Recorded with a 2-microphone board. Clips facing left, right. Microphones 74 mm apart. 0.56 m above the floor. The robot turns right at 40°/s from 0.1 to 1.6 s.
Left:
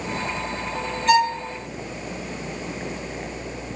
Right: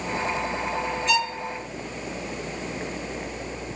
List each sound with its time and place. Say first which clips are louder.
1.1 s a violin: left 10 dB; 50° left (ahead or behind), 1.6 m; by 1.4 s 60° left (ahead or behind), 1.6 m